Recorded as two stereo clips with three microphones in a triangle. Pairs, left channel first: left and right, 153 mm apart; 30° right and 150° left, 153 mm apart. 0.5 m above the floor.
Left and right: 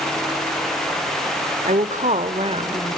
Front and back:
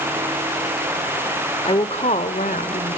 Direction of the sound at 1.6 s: 75° right.